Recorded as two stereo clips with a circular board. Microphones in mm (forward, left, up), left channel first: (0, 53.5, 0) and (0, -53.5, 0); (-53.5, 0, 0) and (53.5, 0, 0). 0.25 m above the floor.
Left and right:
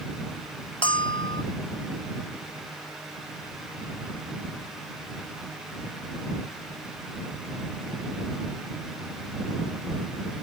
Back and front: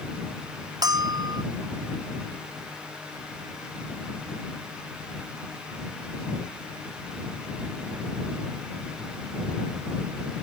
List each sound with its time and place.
0.8 s a bell: 50° left